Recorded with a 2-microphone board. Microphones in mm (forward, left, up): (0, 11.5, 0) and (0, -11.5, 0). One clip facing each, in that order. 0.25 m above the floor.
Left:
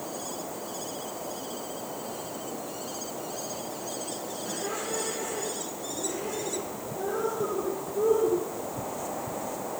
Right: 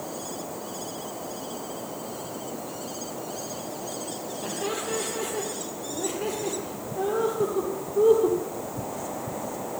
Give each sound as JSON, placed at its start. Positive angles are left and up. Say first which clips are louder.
{"t": 4.4, "sound": "laughter", "louder": "right 4 dB", "side_deg": -65, "distance_m": 9.0}